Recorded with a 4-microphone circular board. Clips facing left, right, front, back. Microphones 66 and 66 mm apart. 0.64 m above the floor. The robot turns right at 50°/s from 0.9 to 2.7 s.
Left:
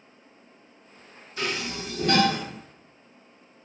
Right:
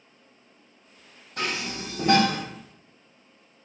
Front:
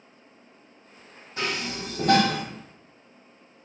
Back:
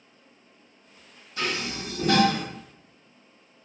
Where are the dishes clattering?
60° right, 1.6 m; by 2.4 s 5° right, 1.6 m.